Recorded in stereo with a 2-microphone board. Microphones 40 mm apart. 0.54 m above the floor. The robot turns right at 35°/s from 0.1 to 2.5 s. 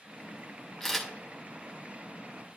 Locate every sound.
0.8 s a camera shutter: 10° left (ahead or behind), 1.7 m; by 1.1 s centre (ahead or behind), 1.7 m